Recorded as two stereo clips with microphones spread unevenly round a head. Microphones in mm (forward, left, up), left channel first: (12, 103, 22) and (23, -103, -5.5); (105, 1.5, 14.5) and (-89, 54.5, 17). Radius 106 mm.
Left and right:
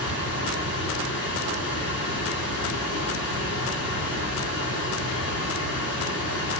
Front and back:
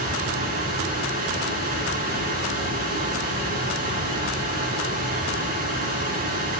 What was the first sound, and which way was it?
A fan, 115° left.